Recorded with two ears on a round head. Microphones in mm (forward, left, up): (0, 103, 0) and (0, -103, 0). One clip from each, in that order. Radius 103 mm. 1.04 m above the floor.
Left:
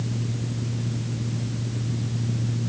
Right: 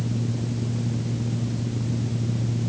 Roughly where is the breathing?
I don't hear breathing.